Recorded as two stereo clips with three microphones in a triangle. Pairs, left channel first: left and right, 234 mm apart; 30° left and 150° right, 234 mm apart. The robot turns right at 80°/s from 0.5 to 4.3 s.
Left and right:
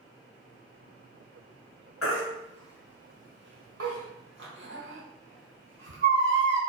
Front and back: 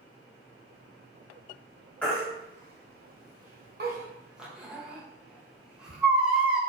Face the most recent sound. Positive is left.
turn(degrees=-65)